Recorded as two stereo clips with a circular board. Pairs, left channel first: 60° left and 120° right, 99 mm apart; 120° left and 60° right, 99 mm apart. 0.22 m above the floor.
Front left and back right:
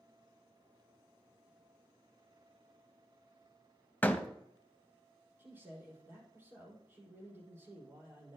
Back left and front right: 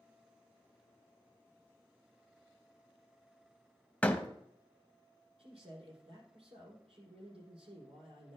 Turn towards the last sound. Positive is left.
turn(degrees=-50)